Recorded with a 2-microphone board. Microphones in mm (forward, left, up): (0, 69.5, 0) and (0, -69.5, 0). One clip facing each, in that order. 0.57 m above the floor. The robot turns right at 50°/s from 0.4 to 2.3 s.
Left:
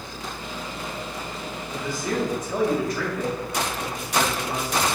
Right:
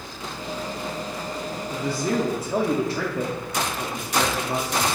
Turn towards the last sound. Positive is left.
turn(degrees=-60)